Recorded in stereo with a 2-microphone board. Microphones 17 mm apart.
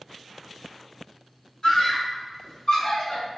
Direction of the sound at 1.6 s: 45° left (ahead or behind).